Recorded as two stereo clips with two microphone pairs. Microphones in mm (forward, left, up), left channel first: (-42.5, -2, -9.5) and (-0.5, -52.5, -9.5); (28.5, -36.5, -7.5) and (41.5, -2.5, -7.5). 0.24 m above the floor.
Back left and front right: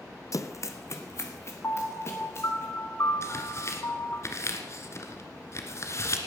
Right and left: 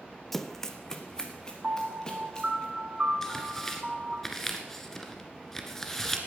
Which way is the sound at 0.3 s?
165° left.